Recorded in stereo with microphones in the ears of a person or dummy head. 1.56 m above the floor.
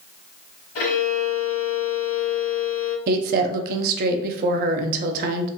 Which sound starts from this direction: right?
A woman speaking, at 3.1 s.